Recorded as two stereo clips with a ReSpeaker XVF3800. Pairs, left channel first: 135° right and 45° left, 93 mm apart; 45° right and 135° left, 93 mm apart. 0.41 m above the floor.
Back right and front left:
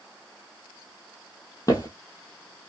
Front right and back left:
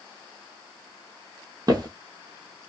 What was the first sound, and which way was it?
Footsteps, 175° left.